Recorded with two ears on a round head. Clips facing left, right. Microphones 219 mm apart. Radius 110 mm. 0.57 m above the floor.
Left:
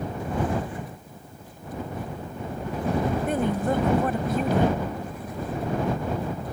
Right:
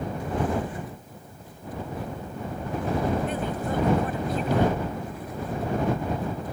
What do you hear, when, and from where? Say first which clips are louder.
3.3 s a woman speaking: left 5 dB; 45° left (ahead or behind)